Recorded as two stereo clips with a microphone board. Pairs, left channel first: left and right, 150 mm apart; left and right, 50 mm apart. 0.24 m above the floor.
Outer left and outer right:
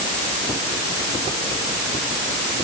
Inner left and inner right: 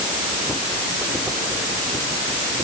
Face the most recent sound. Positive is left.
No sound to turn to.